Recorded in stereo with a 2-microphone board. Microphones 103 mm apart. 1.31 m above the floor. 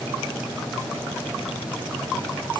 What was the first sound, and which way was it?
Only background noise.